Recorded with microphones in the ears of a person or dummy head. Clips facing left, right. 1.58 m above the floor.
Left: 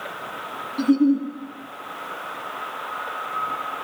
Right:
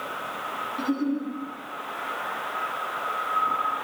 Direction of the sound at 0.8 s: 35° left (ahead or behind).